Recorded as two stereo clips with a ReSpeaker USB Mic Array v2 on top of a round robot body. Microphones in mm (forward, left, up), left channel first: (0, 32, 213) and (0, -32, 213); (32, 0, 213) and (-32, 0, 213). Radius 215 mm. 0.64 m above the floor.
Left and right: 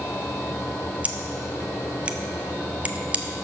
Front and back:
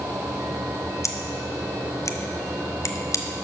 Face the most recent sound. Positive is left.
turn(degrees=-25)